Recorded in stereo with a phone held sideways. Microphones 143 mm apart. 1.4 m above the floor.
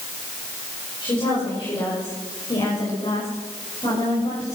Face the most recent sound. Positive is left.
turn(degrees=45)  # may be behind; listen again after turning